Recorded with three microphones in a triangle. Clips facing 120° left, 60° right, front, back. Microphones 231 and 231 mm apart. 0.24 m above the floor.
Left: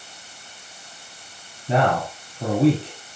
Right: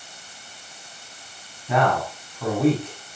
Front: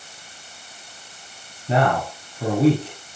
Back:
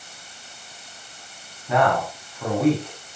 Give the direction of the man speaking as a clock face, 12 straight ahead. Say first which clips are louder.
Left 1 dB, even; 10 o'clock.